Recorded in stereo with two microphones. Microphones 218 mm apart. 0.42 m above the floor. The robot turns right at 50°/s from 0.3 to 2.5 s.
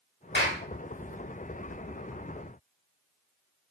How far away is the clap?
About 1.8 m.